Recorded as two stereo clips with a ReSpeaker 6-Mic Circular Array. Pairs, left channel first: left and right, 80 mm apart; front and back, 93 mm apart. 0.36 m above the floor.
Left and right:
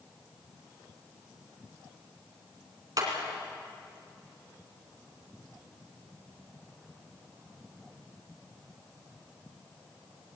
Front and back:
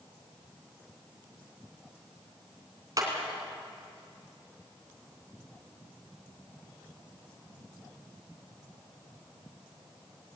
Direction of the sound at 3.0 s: 130° right.